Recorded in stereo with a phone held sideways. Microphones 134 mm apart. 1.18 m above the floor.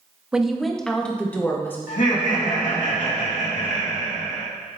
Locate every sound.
0.3 s a woman speaking: 5° right (ahead or behind), 0.8 m; by 1.8 s 15° left (ahead or behind), 1.5 m
1.9 s laughter: 75° left (ahead or behind), 2 m